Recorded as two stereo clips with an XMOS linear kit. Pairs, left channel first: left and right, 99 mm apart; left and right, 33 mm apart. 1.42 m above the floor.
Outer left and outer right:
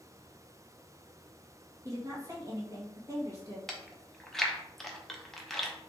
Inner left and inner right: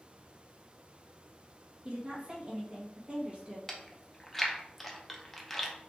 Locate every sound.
1.9 s a woman speaking: 35° right (ahead or behind), 1.5 m
3.7 s chewing: 5° left (ahead or behind), 0.8 m